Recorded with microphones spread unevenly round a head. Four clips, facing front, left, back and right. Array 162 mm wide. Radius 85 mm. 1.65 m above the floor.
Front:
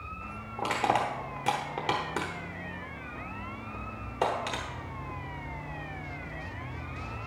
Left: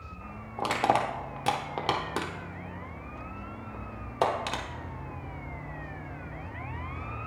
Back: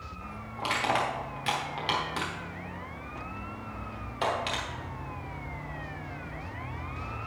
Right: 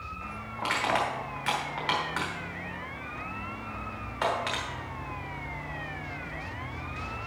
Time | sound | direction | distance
0.6 | crushing | 70° left | 0.9 m